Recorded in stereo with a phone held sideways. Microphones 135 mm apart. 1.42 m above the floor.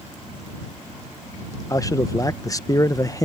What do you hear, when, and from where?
1.7 s a man speaking: 25° left (ahead or behind)